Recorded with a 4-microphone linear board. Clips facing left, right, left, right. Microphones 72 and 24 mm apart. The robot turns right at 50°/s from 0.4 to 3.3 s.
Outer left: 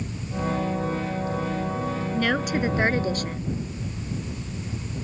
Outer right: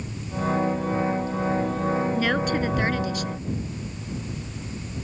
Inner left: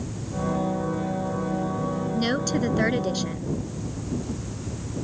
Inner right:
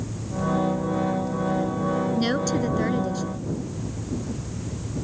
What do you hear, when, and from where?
2.1 s a woman speaking: 10° right; by 3.5 s 50° left